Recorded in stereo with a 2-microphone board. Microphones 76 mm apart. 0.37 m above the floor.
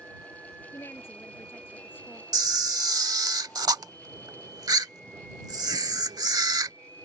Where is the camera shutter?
60° right (ahead or behind).